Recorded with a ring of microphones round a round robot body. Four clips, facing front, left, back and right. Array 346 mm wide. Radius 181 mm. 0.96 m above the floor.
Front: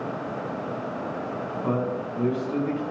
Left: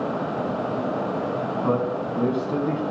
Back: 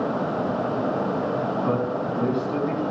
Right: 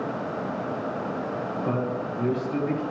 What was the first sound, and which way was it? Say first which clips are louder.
A man speaking: left 4 dB, back 3 dB; 95° left.